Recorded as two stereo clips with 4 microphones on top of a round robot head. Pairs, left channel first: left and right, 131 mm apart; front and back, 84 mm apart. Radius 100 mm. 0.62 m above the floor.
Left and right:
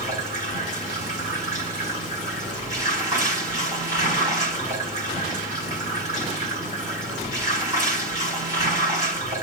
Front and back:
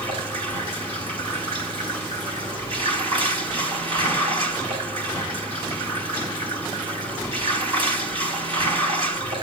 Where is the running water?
160° right, 4.5 m.